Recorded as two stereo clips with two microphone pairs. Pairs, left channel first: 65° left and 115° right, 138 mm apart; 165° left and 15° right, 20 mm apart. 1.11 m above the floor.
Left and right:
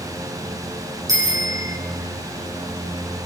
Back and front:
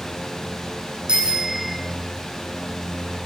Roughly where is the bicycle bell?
Ahead right.